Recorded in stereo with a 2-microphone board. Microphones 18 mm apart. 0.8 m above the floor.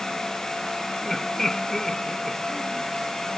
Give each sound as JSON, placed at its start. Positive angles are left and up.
{"t": 1.0, "sound": "laughter", "side_deg": 20}